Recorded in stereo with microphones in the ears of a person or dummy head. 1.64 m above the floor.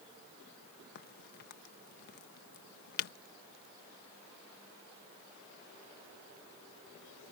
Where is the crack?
55° left (ahead or behind).